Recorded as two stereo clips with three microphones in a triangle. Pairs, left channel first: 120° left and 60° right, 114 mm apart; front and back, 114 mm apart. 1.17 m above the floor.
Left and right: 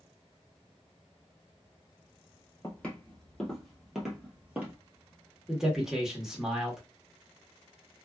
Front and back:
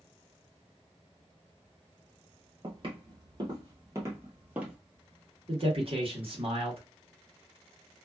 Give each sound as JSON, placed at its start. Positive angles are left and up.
{"t": 2.6, "sound": "footsteps", "azimuth_deg": -165, "distance_m": 1.7}
{"t": 5.5, "sound": "a man speaking", "azimuth_deg": -145, "distance_m": 1.2}